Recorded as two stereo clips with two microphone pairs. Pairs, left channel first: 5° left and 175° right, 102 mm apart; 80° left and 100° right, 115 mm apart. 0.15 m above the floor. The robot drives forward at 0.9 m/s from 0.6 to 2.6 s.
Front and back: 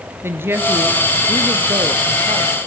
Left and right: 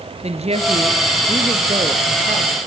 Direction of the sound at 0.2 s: 110° right.